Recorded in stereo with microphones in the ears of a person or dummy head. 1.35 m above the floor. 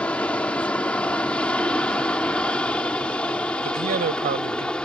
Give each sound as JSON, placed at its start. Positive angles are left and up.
{"t": 0.0, "sound": "an aircraft", "side_deg": 10}
{"t": 3.6, "sound": "a man speaking", "side_deg": -50}